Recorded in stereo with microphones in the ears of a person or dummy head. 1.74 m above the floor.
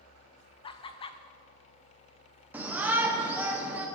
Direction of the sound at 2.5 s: 5° right (ahead or behind).